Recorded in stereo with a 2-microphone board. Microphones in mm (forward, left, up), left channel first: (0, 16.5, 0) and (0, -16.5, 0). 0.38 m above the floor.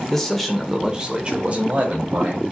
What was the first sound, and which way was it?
A man speaking, 10° left (ahead or behind).